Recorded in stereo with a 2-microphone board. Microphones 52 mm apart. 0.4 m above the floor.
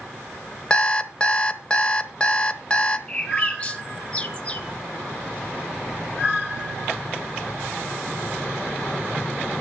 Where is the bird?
25° left (ahead or behind), 1.2 m.